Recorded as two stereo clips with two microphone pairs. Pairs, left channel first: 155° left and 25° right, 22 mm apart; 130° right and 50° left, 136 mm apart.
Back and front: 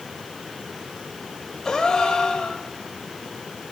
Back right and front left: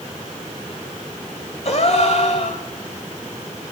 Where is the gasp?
140° right, 2 m.